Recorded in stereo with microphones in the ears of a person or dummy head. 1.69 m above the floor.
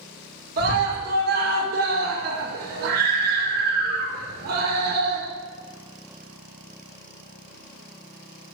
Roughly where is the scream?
Right.